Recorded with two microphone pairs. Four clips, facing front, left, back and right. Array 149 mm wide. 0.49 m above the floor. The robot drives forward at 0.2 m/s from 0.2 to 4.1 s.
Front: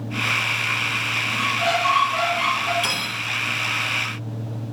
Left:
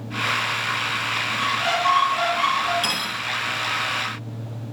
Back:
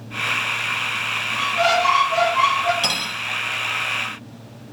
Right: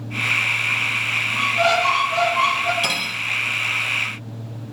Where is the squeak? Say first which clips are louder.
Right 5 dB, back 4 dB; 140° right, 0.5 m; by 2.7 s 155° right, 0.7 m.